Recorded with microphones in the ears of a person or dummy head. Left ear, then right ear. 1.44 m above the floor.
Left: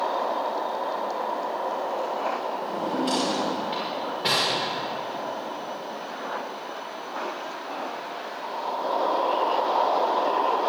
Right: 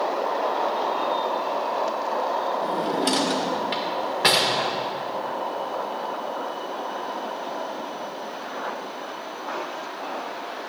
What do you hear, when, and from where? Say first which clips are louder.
2.6 s a drawer: right 3 dB; 50° right (ahead or behind), 1.7 m